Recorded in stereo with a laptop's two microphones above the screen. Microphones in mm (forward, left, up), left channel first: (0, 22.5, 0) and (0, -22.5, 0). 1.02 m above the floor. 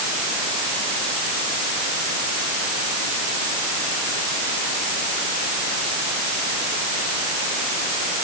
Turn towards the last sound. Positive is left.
No sound to turn to.